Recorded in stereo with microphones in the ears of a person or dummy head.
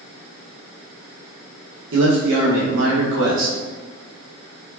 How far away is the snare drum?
I don't hear a snare drum.